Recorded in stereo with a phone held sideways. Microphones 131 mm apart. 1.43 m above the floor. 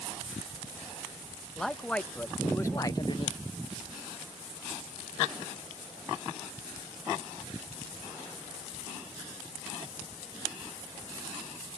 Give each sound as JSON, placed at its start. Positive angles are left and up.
{"t": 1.6, "sound": "a man speaking", "side_deg": 5}